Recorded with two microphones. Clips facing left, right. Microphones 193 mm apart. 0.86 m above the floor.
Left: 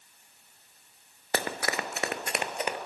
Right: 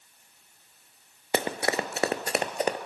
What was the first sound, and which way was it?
Running footsteps, 20° right (ahead or behind).